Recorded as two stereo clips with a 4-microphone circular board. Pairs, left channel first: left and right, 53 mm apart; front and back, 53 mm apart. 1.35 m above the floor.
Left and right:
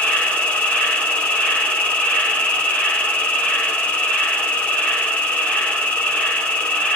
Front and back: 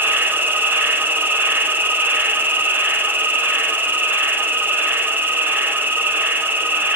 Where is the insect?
145° left, 1.2 m.